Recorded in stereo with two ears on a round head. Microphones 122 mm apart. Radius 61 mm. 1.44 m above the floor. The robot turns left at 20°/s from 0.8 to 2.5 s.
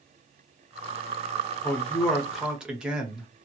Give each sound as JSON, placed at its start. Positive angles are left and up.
{"t": 1.6, "sound": "a man speaking", "side_deg": 10, "distance_m": 0.7}